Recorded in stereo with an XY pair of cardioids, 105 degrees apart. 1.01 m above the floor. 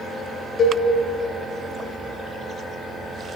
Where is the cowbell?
55° left, 1.3 m.